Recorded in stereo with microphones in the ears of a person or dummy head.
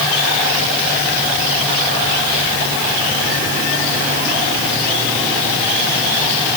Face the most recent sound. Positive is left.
No sound to turn to.